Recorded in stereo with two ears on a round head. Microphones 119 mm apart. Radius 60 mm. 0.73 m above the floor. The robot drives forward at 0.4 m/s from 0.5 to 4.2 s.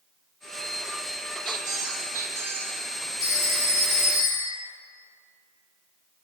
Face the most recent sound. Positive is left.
turn(degrees=30)  # may be behind; listen again after turning